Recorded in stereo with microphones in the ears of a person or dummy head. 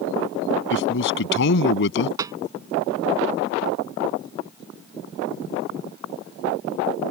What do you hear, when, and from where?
0.7 s a man speaking: 70° left (ahead or behind); by 2.1 s 65° left (ahead or behind)
2.2 s a snare drum: 20° right (ahead or behind)